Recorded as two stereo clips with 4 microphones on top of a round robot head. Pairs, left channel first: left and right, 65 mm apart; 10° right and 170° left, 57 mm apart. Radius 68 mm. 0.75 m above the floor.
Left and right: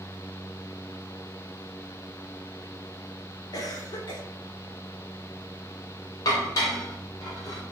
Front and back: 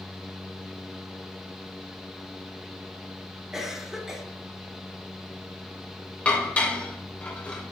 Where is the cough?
85° left, 2.5 m.